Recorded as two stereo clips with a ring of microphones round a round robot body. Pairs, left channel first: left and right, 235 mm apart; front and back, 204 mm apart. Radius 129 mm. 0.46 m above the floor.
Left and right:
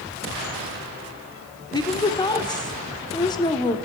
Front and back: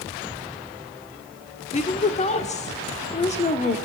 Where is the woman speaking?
30° left, 1.2 m.